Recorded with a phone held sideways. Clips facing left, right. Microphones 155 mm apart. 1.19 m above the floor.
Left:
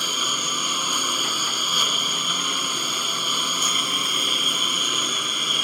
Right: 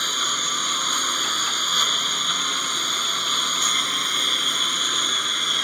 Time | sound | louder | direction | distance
0.0 | a lawn mower | left 1 dB | 10° left (ahead or behind) | ?